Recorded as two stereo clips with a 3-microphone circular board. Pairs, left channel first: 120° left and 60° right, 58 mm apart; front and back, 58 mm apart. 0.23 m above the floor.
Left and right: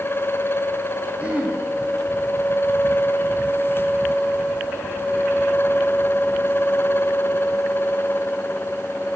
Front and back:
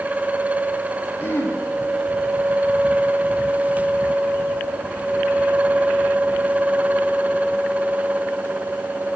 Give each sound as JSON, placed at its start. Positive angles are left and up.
{"t": 1.2, "sound": "throat clearing", "azimuth_deg": -10, "distance_m": 1.7}